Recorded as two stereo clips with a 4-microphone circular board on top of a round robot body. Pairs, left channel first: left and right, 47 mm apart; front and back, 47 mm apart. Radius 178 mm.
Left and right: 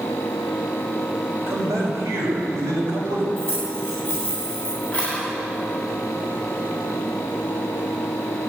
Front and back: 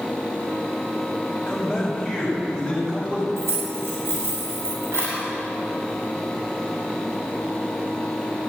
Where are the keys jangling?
160° left, 7 m.